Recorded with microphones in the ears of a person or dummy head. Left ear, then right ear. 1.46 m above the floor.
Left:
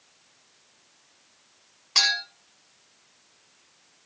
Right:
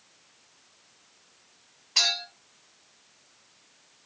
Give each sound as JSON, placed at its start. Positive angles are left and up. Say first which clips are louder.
{"t": 1.9, "sound": "a clink", "louder": "left 2 dB", "side_deg": 45, "distance_m": 1.2}